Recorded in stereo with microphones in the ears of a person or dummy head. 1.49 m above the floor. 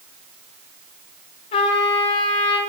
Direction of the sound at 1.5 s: 35° left (ahead or behind).